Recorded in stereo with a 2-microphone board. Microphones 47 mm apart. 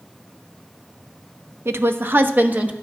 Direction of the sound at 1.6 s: 65° right (ahead or behind).